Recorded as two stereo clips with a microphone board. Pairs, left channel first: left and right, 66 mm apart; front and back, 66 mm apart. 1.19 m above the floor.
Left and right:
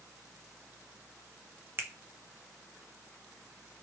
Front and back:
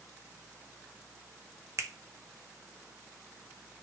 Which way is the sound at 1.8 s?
140° right.